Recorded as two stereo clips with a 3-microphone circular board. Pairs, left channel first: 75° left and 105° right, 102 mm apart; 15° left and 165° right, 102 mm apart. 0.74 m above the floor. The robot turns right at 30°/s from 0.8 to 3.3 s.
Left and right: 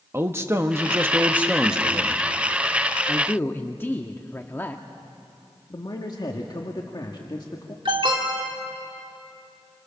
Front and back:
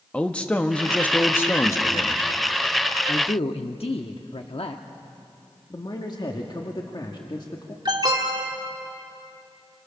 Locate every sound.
0.1 s a man speaking: 55° right, 1.0 m; by 2.2 s 15° right, 1.0 m
3.1 s a man speaking: straight ahead, 1.0 m; by 4.8 s 5° left, 1.0 m
5.7 s a man speaking: 40° left, 1.7 m
7.8 s an alarm: 130° right, 2.5 m